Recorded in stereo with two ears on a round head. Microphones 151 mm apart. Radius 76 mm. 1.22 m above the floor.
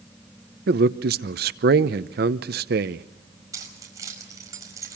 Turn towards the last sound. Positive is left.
turn(degrees=-20)  # may be behind; listen again after turning